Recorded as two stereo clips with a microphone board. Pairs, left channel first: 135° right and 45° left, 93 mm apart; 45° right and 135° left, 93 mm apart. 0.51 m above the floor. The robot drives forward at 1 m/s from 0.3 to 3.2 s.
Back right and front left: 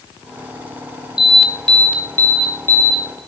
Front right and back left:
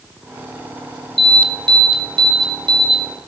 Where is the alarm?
130° left, 1.1 m; by 3.2 s 165° left, 3 m.